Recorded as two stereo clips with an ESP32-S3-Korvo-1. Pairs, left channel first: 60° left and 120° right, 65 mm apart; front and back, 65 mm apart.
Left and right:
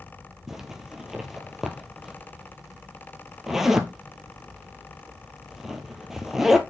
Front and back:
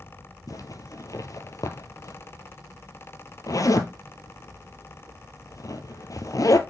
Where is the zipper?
35° right, 0.9 m.